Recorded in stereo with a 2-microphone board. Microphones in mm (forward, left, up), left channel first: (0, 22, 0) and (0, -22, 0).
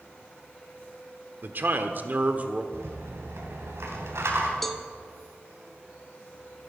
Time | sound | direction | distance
1.4 | a man speaking | 50° right (ahead or behind) | 1.1 m
2.7 | a rattle | 80° right | 2.5 m
4.6 | a cowbell | 5° left (ahead or behind) | 0.8 m